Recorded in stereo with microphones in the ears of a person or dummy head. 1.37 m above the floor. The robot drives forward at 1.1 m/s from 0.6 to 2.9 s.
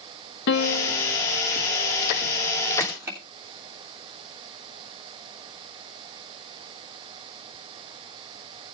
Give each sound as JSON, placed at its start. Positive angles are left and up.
{"t": 0.5, "sound": "a piano", "side_deg": 60, "distance_m": 1.2}
{"t": 2.8, "sound": "crushing", "side_deg": -20, "distance_m": 2.5}